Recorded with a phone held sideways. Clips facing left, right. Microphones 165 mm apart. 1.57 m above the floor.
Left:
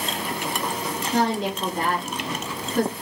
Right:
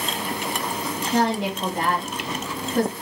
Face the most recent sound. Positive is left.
turn(degrees=-55)  # may be behind; listen again after turning